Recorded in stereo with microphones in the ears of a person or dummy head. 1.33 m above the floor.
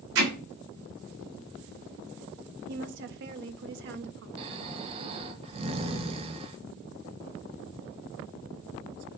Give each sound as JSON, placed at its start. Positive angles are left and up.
{"t": 0.1, "sound": "hammering", "side_deg": -70, "distance_m": 3.5}
{"t": 2.7, "sound": "a woman speaking", "side_deg": -60, "distance_m": 0.8}
{"t": 4.4, "sound": "snoring", "side_deg": -35, "distance_m": 1.2}